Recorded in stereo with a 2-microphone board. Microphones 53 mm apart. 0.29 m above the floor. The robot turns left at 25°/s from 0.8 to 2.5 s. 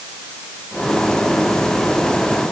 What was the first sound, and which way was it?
Only background noise.